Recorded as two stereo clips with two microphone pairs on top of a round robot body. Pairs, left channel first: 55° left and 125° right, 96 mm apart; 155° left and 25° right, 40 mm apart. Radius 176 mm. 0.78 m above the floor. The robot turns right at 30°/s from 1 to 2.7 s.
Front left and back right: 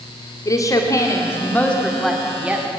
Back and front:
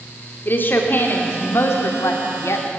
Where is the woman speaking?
115° left, 2 m; by 2.7 s 165° left, 2 m.